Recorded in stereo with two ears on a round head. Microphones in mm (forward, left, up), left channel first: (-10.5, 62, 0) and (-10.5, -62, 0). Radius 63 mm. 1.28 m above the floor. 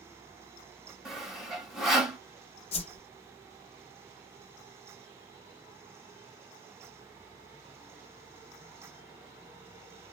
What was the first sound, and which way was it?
Sawing, centre (ahead or behind).